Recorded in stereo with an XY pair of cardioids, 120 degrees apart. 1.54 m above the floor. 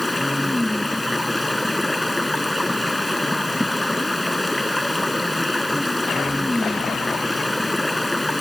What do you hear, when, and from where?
0.0 s running water: 5° left